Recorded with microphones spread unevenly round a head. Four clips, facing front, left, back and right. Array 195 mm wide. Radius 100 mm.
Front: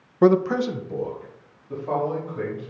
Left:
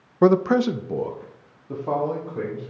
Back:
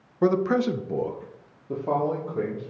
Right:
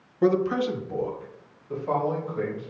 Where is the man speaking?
45° left, 0.6 m; by 2.7 s 145° left, 3.5 m.